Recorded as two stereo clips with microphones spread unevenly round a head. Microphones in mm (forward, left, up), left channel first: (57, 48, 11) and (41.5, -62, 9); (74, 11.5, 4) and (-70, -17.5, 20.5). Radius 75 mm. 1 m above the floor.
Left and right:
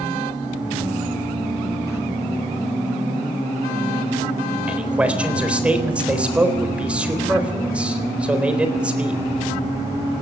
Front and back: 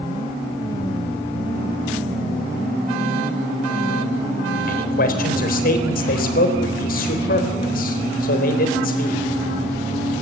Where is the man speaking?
20° right, 3.5 m.